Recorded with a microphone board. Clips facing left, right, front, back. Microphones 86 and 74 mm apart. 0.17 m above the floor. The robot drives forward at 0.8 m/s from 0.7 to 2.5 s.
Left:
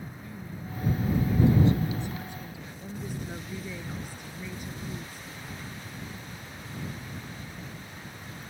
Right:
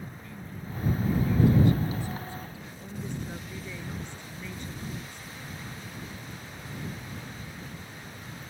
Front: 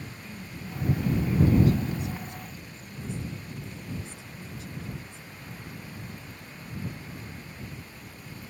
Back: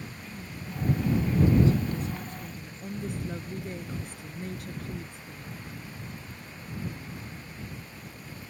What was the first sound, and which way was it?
A woman speaking, 65° left.